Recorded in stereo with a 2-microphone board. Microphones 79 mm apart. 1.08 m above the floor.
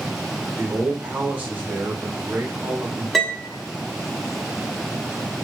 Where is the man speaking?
25° right (ahead or behind), 1.1 m.